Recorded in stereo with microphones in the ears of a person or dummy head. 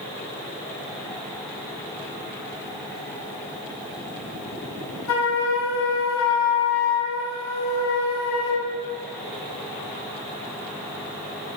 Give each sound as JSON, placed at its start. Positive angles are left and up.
{"t": 5.1, "sound": "a flute", "side_deg": 85, "distance_m": 0.8}